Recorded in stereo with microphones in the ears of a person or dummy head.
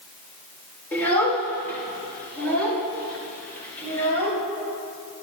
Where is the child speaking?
10° left (ahead or behind), 3.5 m; by 4.4 s 15° left (ahead or behind), 6 m.